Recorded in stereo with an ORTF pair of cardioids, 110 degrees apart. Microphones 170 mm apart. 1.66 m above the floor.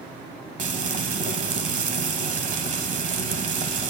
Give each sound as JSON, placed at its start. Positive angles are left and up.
{"t": 0.6, "sound": "frying", "azimuth_deg": -45, "distance_m": 1.1}